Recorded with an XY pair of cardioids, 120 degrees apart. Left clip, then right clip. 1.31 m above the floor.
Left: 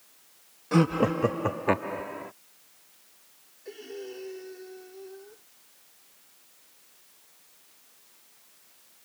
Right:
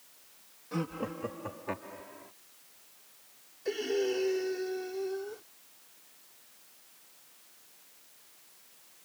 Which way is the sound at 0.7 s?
65° left.